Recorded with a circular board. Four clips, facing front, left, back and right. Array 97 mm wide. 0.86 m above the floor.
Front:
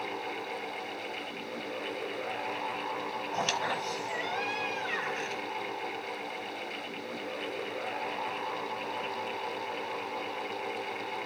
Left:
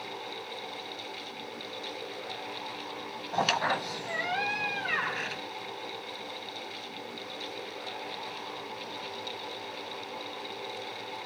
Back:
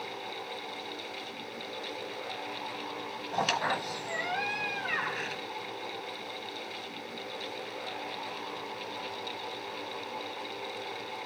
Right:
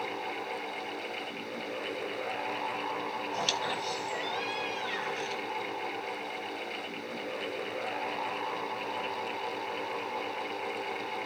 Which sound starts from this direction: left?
A squeak, at 3.3 s.